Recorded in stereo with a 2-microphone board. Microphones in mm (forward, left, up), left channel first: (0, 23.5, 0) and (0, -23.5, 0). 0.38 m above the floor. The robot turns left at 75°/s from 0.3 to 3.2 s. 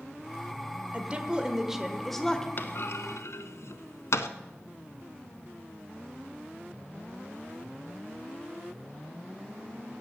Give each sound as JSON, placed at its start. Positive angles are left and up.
{"t": 0.9, "sound": "a woman speaking", "side_deg": -25, "distance_m": 1.0}
{"t": 2.6, "sound": "a clunk", "side_deg": 45, "distance_m": 0.7}